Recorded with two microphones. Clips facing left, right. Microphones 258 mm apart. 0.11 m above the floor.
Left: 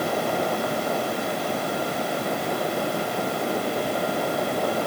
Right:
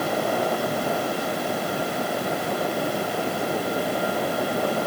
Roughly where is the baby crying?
I don't hear a baby crying.